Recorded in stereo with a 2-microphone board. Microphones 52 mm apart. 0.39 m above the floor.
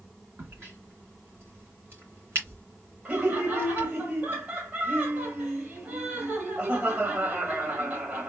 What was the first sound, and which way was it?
A crack, 55° right (ahead or behind).